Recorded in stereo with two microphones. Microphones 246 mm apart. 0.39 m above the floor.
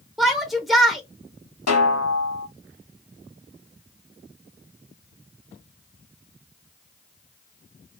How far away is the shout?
About 0.9 m.